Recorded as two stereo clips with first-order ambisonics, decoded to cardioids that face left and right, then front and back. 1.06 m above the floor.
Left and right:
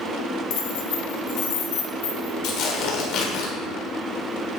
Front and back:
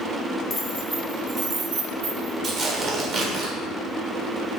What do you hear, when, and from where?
0.5 s keys jangling: 70° left, 0.9 m; by 2.3 s 140° left, 1.3 m
2.4 s tearing paper: 120° left, 1.4 m